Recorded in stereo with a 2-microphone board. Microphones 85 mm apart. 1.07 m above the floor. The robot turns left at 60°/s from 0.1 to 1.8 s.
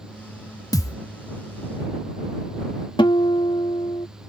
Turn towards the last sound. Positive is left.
turn(degrees=75)  # may be behind; listen again after turning